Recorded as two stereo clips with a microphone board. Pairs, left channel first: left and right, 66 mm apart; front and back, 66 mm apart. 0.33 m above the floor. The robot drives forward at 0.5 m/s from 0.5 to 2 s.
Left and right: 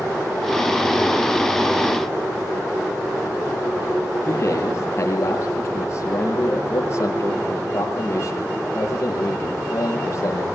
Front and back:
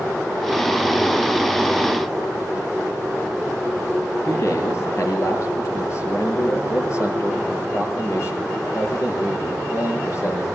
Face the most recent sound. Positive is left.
turn(degrees=40)